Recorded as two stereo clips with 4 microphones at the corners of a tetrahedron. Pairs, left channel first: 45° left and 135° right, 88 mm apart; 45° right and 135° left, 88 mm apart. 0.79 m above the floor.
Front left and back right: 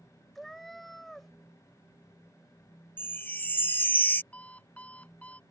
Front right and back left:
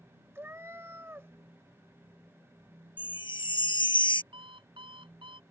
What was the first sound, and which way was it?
A cat meowing, 130° left.